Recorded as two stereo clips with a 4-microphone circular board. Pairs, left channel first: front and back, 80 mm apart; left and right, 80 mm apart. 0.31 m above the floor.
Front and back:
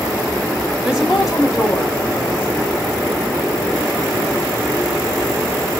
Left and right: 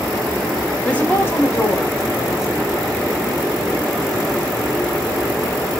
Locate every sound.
0.8 s a woman speaking: 125° left, 0.8 m; by 2.7 s 70° left, 1.4 m